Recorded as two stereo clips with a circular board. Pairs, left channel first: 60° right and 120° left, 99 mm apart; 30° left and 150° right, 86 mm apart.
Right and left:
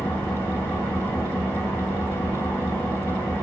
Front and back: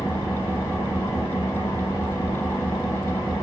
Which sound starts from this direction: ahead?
An engine running, at 0.0 s.